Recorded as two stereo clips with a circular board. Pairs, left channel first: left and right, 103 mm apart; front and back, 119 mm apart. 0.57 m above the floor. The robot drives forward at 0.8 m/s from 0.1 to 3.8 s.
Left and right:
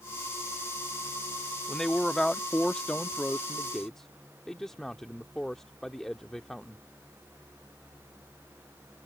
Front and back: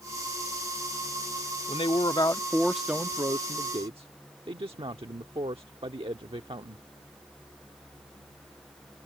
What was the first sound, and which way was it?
A man speaking, 5° left.